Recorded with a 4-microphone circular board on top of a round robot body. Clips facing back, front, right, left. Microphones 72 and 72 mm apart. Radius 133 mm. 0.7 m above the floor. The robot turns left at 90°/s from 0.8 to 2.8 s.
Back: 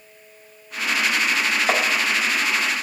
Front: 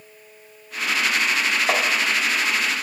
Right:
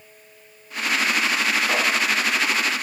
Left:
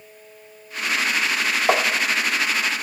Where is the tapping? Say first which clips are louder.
Back 1 dB, left 8 dB; 95° left, 1.1 m; by 1.9 s 75° left, 1.1 m.